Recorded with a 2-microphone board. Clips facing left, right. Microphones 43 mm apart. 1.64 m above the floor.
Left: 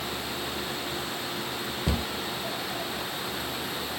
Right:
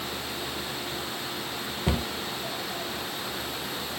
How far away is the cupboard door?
About 0.9 m.